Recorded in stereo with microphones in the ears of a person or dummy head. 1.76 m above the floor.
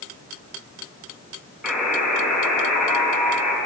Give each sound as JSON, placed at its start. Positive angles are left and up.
{"t": 1.6, "sound": "a buzzer", "side_deg": -5, "distance_m": 3.5}